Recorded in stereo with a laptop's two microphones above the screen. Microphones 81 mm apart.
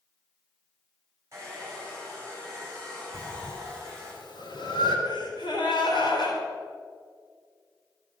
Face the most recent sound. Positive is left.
turn(degrees=70)  # may be behind; listen again after turning